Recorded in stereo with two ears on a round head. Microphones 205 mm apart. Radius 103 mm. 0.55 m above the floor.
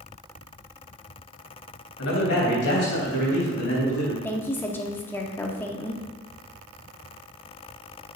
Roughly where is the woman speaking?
Centre.